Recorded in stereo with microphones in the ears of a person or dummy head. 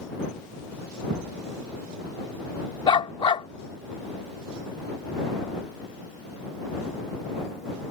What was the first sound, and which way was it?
A thud, 55° right (ahead or behind).